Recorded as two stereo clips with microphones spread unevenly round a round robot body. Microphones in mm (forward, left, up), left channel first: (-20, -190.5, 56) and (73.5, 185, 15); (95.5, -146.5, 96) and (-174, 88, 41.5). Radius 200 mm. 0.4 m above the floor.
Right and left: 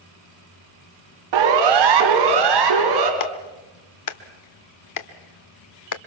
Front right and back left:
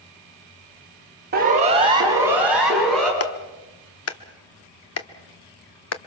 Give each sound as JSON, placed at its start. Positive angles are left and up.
{"t": 1.3, "sound": "a siren", "azimuth_deg": 75, "distance_m": 2.5}
{"t": 3.2, "sound": "a clap", "azimuth_deg": -80, "distance_m": 1.2}